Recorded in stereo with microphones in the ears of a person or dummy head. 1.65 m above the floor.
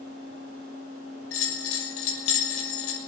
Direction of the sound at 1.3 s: 75° left (ahead or behind).